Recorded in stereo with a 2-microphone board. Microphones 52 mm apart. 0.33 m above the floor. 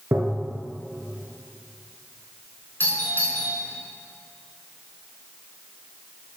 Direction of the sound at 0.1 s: 60° right (ahead or behind).